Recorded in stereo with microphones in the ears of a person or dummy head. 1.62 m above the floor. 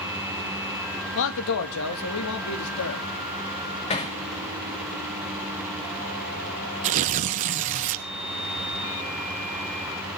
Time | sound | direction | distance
1.1 | a man speaking | 65° left (ahead or behind) | 1.8 m
3.9 | hammering | 30° left (ahead or behind) | 2.5 m
6.8 | tearing paper | 35° right (ahead or behind) | 0.7 m